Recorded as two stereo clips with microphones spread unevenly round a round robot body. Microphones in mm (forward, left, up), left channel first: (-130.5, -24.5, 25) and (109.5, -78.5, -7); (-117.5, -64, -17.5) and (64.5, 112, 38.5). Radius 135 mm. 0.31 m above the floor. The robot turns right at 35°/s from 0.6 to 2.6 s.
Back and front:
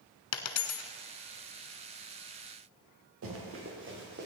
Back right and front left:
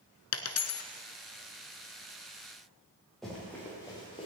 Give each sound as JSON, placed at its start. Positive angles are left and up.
{"t": 0.3, "sound": "a dropped coin", "azimuth_deg": -170, "distance_m": 0.9}
{"t": 3.2, "sound": "running footsteps", "azimuth_deg": -45, "distance_m": 5.0}